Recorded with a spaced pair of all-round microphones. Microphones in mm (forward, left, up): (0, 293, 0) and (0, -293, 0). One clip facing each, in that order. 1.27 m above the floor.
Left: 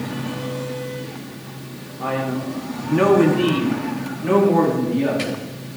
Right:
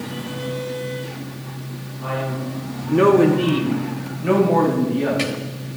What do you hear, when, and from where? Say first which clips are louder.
2.0 s a man speaking: left 3 dB; 80° left, 1.1 m; by 5.4 s 35° right (ahead or behind), 3 m